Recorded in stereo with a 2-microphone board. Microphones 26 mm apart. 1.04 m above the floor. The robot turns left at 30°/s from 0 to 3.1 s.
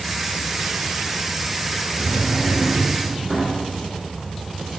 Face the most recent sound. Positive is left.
turn(degrees=-10)